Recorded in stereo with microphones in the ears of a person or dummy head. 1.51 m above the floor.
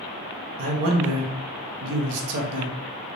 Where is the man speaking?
80° right, 0.9 m.